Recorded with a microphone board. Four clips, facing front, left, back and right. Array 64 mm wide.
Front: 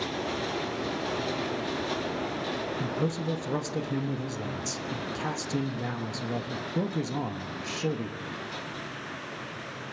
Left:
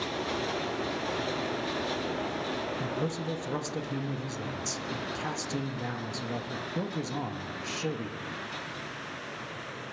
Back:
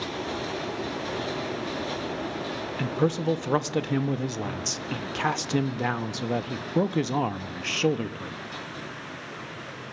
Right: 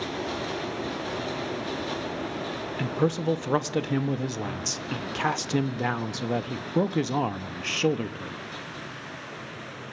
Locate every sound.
2.8 s a man speaking: 135° right, 0.9 m